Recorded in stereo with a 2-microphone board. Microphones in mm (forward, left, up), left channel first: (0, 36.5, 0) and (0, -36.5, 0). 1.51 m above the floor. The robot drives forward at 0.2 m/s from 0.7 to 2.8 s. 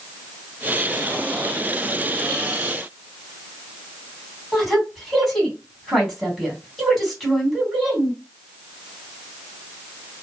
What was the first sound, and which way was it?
A woman speaking, centre (ahead or behind).